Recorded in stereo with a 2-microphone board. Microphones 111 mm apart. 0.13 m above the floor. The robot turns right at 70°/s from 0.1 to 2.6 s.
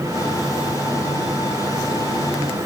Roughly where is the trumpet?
I don't hear a trumpet.